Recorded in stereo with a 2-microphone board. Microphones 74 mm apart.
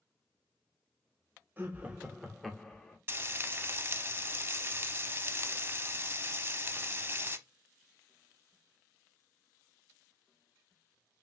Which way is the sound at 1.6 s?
25° right (ahead or behind).